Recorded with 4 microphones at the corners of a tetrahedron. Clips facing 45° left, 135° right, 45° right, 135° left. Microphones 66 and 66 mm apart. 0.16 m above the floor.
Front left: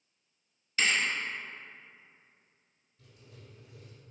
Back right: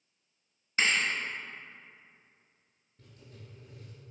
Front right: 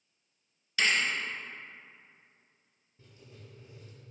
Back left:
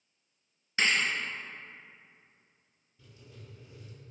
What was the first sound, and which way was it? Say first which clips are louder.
A thud: back right 1 dB, even; 175° right.